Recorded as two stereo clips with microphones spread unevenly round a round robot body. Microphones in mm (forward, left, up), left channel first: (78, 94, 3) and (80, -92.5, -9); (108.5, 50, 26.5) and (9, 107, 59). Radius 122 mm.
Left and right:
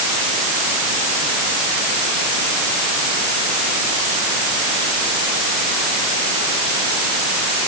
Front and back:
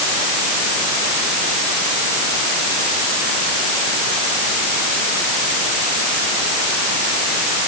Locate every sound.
Only background noise.